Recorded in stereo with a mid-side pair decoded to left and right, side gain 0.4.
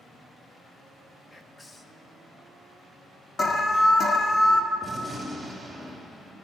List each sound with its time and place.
1.3 s whispering: 25° left, 1.4 m
3.4 s an alarm: 40° left, 1.3 m
4.8 s a gunshot: 15° right, 2.5 m